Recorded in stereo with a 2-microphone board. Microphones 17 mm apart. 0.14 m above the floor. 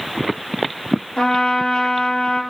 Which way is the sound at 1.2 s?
65° left (ahead or behind).